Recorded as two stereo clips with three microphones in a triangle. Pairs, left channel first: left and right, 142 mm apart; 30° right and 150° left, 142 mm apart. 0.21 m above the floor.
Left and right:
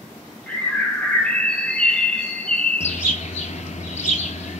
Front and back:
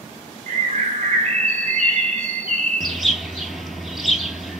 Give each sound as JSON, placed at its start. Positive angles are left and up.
{"t": 0.5, "sound": "a bird", "azimuth_deg": 170, "distance_m": 0.6}
{"t": 2.8, "sound": "a bird", "azimuth_deg": 60, "distance_m": 0.7}